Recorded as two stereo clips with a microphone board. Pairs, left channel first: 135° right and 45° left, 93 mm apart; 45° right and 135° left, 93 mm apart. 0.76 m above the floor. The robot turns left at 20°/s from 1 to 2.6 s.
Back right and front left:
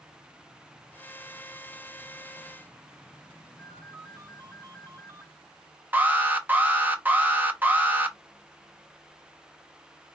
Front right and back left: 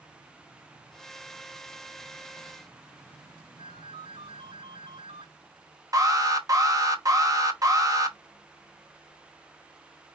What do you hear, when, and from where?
3.6 s a ringtone: 105° left, 3.5 m
5.9 s an alarm: 105° left, 1.0 m